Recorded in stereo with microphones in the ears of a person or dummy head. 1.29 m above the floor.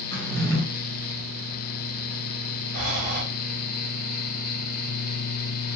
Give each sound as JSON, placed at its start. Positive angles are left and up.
{"t": 0.1, "sound": "a drawer", "side_deg": -65, "distance_m": 2.0}
{"t": 2.7, "sound": "breathing", "side_deg": -70, "distance_m": 1.5}